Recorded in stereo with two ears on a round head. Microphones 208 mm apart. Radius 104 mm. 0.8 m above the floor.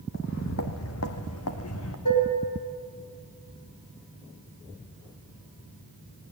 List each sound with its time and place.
0.1 s footsteps: 55° left (ahead or behind), 2 m; by 1.9 s 70° left (ahead or behind), 2.5 m
2.0 s dishes clattering: 85° left, 5.5 m